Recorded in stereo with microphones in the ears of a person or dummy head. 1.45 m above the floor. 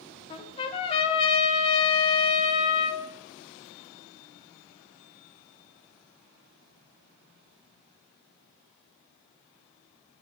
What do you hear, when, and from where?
0.3 s a trumpet: 30° left (ahead or behind), 0.9 m